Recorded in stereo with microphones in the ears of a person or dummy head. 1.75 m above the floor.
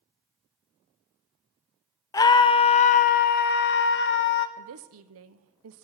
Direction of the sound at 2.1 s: 20° left (ahead or behind).